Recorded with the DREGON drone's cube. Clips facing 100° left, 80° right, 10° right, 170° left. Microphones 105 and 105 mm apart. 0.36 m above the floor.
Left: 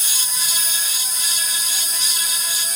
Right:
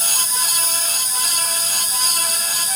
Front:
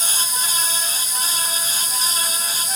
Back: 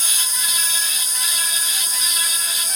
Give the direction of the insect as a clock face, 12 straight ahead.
10 o'clock.